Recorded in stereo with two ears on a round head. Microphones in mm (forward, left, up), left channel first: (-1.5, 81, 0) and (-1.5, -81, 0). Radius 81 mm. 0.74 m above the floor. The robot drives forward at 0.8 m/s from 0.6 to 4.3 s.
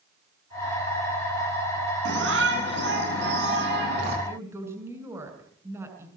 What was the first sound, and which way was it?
A shout, 70° right (ahead or behind).